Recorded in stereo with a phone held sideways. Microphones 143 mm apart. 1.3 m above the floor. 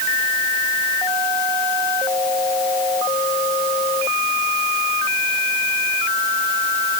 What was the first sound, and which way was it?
Only background noise.